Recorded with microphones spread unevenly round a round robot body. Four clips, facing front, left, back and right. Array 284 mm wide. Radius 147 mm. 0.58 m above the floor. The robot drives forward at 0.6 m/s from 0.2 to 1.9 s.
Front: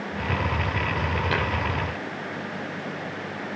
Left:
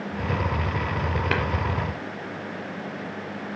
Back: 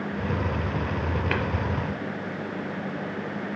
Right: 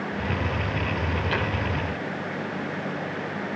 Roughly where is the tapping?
Left.